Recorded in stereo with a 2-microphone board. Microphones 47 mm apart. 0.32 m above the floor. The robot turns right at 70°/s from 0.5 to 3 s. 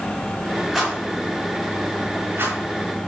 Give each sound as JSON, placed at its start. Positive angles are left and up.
{"t": 0.7, "sound": "a rattle", "side_deg": 5, "distance_m": 4.0}